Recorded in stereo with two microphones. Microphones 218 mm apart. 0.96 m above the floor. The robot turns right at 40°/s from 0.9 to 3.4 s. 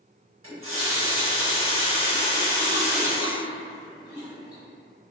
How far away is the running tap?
About 1.0 m.